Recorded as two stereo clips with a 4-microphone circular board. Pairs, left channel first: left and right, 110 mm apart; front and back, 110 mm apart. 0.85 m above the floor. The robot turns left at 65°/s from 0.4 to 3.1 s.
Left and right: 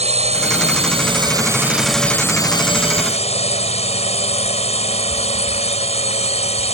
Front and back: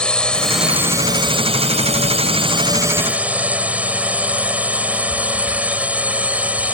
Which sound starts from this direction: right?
A drone, at 0.0 s.